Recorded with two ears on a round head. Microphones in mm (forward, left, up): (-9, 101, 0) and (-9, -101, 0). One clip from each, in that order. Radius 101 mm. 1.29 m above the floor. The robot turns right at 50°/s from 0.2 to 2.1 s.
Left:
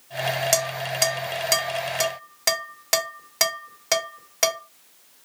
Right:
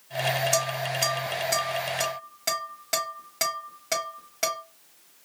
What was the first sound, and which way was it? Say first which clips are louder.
Dishes clattering: left 2 dB; 60° left (ahead or behind).